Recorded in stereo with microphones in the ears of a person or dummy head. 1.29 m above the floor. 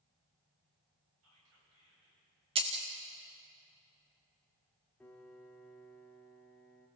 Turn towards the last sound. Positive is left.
turn(degrees=10)  # may be behind; listen again after turning